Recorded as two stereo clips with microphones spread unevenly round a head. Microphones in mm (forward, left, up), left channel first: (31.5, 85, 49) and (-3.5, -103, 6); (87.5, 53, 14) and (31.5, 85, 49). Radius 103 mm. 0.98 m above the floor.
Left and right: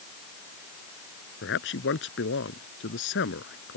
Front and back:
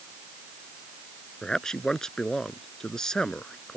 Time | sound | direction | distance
1.4 | a man speaking | 50° left | ?